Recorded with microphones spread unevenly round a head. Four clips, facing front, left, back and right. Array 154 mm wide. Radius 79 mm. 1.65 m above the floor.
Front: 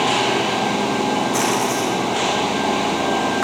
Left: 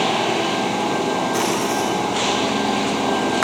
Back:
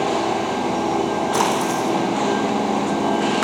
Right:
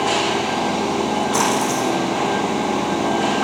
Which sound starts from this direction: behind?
A splash, at 1.3 s.